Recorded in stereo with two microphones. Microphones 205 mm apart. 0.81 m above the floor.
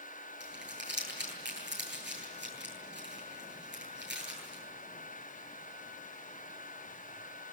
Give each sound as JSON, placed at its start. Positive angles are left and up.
{"t": 0.4, "sound": "crumpling", "side_deg": -60, "distance_m": 10.0}